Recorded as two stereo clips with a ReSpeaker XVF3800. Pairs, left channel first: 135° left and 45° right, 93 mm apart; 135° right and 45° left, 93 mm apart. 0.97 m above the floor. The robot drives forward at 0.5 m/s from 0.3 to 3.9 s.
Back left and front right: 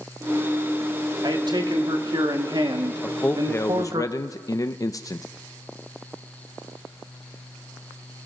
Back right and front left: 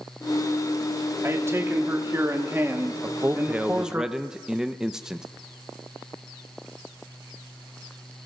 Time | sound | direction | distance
1.2 | a man speaking | 10° right | 3 m
3.0 | a man speaking | 65° left | 0.7 m